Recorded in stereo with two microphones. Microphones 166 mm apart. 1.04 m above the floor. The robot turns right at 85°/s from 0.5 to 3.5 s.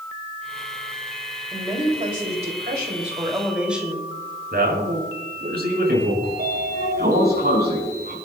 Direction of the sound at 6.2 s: 80° right.